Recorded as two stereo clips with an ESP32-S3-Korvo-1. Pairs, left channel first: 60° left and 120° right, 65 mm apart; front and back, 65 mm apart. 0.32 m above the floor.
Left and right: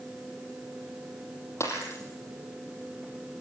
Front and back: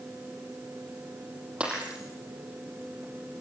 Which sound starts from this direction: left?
Breaking glass, at 1.6 s.